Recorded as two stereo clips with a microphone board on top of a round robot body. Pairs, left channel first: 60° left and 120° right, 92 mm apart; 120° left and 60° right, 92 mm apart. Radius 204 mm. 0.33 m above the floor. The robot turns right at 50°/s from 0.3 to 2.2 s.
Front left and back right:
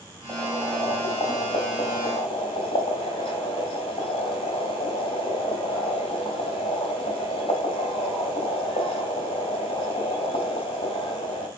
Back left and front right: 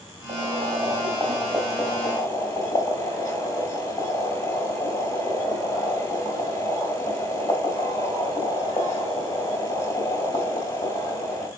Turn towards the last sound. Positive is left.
turn(degrees=60)